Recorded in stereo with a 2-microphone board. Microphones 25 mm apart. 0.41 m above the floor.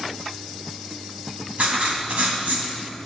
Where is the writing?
70° right (ahead or behind), 3 m.